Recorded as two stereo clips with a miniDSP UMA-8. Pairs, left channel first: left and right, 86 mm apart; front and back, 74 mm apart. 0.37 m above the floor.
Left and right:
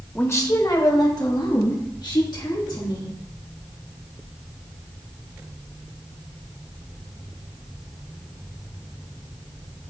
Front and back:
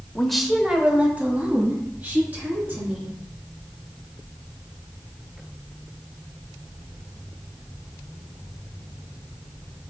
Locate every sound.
0.1 s a woman speaking: 65° left, 0.8 m; by 3.1 s 115° left, 4.5 m